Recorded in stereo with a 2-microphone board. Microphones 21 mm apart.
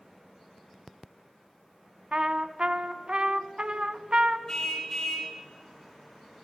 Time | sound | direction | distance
2.1 | a trumpet | 50° right (ahead or behind) | 0.7 m
4.5 | a car horn | 30° left (ahead or behind) | 2.5 m